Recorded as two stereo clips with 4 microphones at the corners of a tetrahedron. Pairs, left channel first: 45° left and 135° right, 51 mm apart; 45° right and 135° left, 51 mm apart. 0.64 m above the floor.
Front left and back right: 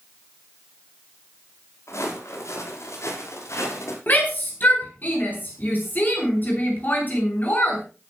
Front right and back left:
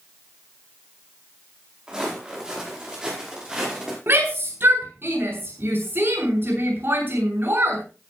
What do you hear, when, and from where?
1.9 s footsteps: 60° left, 9.5 m
4.1 s a shout: 95° left, 8.5 m